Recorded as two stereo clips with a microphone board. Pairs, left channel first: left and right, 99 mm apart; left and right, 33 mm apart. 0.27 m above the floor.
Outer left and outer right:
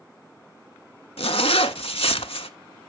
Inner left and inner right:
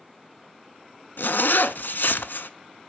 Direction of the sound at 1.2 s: 75° left (ahead or behind).